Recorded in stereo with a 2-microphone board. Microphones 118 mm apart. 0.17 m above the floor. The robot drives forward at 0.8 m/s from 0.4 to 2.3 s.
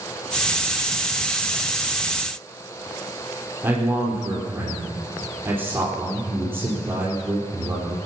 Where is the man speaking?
20° right (ahead or behind), 4 m.